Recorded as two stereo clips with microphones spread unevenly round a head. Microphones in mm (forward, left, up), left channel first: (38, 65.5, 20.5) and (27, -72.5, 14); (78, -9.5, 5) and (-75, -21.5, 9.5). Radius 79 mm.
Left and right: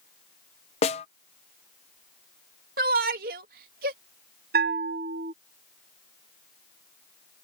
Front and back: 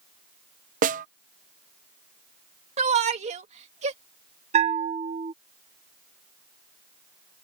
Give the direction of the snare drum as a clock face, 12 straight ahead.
7 o'clock.